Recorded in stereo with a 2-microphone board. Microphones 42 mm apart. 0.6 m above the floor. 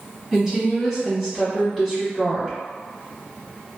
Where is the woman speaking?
10° right (ahead or behind), 1.4 m.